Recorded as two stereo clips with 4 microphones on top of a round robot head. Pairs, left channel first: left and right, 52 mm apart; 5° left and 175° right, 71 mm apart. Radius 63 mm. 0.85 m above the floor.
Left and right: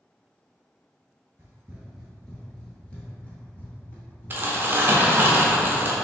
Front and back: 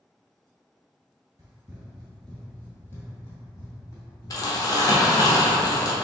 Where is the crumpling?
40° right, 0.9 m.